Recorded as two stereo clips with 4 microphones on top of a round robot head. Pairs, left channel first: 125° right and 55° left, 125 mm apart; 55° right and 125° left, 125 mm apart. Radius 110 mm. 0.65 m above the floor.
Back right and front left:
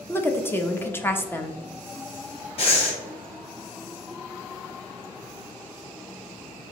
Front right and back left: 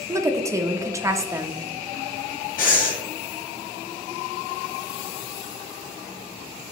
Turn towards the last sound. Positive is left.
turn(degrees=-80)